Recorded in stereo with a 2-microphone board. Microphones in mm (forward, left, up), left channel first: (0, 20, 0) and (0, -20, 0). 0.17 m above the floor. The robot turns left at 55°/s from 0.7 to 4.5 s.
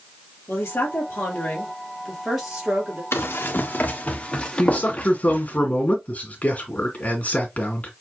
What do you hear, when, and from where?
0.5 s a woman speaking: 80° left, 3 m; by 3.0 s 45° right, 3 m
3.1 s running footsteps: 70° left (ahead or behind), 1.7 m; by 5.6 s 45° left (ahead or behind), 1.3 m
4.6 s a man speaking: 40° left (ahead or behind), 2 m